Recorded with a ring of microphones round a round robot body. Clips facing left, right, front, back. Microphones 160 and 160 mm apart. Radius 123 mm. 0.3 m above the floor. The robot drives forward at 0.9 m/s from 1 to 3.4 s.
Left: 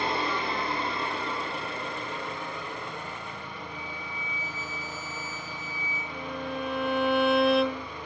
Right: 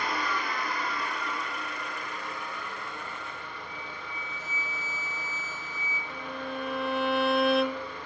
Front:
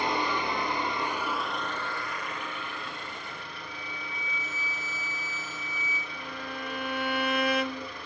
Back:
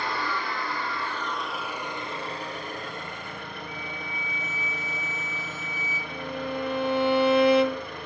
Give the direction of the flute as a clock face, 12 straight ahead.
5 o'clock.